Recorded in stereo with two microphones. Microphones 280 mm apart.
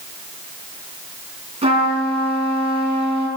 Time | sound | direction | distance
1.6 | a trumpet | 20° right (ahead or behind) | 3.5 m